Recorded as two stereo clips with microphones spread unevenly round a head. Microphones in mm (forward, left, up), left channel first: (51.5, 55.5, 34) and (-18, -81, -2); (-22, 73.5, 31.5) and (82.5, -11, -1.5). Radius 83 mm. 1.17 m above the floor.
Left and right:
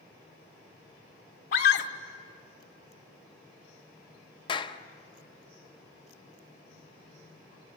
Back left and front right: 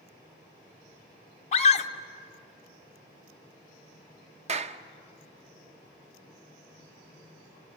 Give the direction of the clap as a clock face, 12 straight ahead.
12 o'clock.